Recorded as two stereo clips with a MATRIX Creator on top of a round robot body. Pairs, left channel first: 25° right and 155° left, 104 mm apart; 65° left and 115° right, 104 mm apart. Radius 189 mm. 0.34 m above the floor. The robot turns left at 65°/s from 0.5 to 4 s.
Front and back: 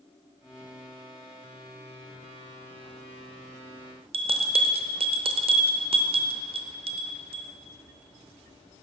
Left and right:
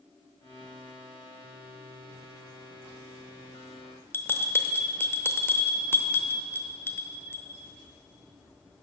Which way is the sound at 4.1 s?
135° left.